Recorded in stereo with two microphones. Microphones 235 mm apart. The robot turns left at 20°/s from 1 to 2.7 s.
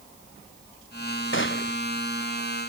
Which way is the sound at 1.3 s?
55° left (ahead or behind).